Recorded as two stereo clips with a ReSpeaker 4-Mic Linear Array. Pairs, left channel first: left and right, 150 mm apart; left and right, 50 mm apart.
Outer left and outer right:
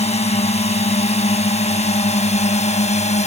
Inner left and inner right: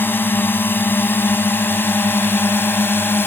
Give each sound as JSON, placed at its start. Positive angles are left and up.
{"t": 0.0, "sound": "a drone", "side_deg": 45}